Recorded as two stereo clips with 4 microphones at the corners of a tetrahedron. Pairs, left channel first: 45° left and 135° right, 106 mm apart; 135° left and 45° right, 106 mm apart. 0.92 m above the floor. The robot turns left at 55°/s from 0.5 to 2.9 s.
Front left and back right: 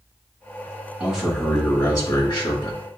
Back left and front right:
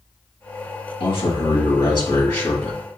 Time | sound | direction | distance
1.0 | a man speaking | 150° left | 1.7 m